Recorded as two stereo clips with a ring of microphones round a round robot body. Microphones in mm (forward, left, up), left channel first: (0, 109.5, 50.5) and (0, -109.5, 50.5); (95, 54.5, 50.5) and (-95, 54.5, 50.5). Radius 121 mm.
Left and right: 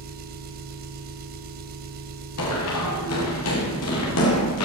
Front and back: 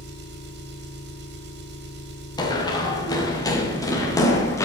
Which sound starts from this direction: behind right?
An engine running, at 0.0 s.